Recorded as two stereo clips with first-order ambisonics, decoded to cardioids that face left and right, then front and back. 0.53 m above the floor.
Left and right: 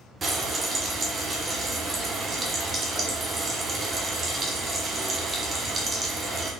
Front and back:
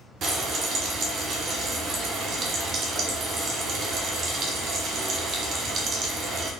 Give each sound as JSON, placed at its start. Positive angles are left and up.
{"t": 0.2, "sound": "frying", "azimuth_deg": -150, "distance_m": 0.9}